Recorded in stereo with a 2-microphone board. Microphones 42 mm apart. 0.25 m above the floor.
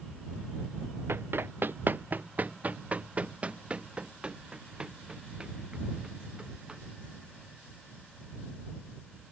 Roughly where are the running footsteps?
Right.